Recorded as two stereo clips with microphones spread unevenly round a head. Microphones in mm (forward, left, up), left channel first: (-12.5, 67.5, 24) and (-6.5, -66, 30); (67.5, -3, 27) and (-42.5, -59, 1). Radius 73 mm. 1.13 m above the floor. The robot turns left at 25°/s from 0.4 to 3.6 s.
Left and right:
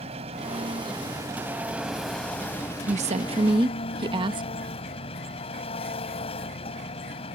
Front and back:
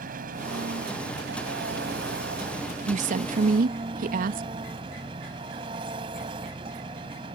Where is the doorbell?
No doorbell in this recording.